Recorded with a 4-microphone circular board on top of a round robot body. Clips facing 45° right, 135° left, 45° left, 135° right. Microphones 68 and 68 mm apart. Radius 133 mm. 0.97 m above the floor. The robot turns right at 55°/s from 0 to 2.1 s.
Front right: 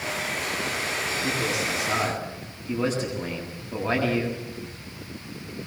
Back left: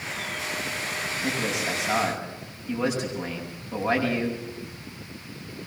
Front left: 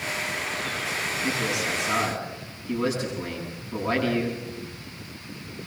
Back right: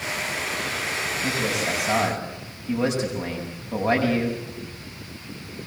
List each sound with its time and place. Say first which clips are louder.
1.2 s a man speaking: back left 1 dB, back right 2 dB; 165° left, 7 m; by 4.4 s 150° right, 7 m